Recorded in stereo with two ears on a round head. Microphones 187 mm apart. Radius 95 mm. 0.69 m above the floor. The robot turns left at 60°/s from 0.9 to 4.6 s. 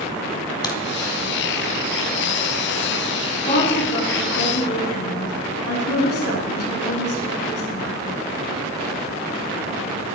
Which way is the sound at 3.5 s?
155° left.